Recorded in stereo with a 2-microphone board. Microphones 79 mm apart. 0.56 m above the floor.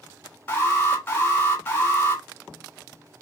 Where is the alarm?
20° left (ahead or behind), 1.5 m.